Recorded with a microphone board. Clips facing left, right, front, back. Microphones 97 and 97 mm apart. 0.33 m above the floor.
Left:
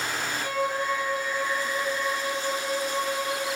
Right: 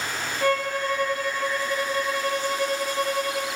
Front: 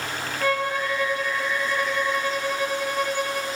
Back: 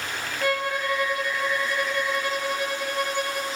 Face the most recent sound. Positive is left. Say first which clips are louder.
# right 5 dB, front 1 dB
turn(degrees=-95)